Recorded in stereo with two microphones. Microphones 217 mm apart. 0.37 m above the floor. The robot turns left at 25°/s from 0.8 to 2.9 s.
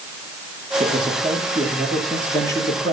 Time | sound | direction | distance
0.8 | a man speaking | 150° right | 7 m